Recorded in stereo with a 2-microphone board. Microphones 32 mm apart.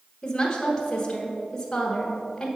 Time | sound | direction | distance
0.2 | a woman speaking | 15° left (ahead or behind) | 1.2 m